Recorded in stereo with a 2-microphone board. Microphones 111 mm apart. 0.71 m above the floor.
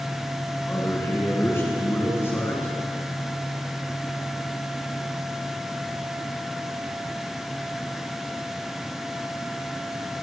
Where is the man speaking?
20° left (ahead or behind), 8.5 m.